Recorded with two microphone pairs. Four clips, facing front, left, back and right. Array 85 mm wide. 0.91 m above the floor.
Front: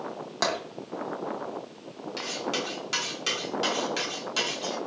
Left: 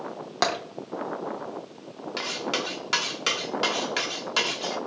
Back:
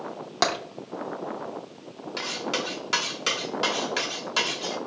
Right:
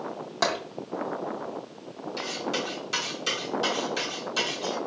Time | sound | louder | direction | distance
0.4 | tapping | left 1 dB, back 3 dB | 130° left | 0.8 m
2.2 | cutlery clinking | left 1 dB, back 2 dB | 110° left | 1.0 m